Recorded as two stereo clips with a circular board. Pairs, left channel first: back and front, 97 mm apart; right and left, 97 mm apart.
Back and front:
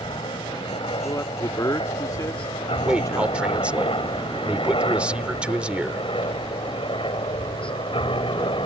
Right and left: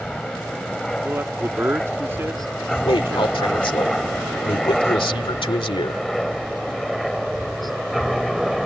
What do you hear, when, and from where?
0.0 s a helicopter: 175° right; by 8.7 s straight behind
1.0 s a man speaking: 145° left
2.9 s a man speaking: 75° right